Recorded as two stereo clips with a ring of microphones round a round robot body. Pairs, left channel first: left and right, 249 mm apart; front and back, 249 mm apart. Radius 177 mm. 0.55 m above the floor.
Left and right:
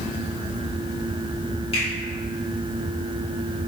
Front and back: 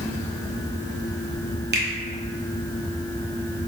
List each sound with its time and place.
1.7 s a finger snap: 150° left, 0.8 m